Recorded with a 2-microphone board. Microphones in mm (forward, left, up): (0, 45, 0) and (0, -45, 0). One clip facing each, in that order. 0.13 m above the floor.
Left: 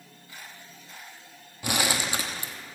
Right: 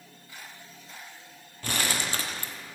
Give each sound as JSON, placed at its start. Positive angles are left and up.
{"t": 1.6, "sound": "crumpling", "side_deg": 15, "distance_m": 0.9}